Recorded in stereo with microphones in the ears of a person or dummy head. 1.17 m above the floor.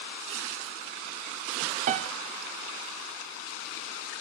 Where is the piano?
40° right (ahead or behind), 0.5 m.